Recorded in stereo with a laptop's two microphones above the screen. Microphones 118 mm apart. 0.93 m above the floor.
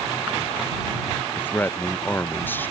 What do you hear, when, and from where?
1.4 s a man speaking: 15° left (ahead or behind)